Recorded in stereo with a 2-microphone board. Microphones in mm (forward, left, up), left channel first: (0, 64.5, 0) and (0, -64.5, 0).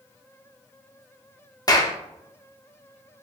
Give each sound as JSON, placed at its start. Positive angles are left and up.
{"t": 1.7, "sound": "a clap", "side_deg": 30, "distance_m": 0.5}